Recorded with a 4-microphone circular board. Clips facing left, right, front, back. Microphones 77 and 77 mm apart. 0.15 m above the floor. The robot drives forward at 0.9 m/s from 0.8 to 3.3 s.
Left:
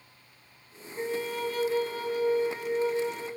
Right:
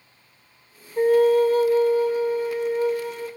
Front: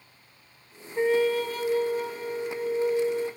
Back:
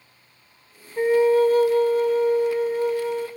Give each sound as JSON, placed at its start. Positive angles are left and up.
{"t": 1.0, "sound": "a flute", "azimuth_deg": -95, "distance_m": 0.6}